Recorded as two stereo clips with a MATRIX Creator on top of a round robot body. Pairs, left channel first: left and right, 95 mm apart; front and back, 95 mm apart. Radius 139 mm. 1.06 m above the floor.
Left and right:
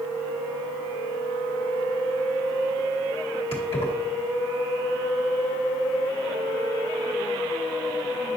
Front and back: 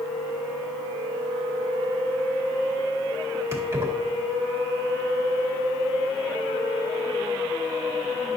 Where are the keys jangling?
120° left, 1.8 m.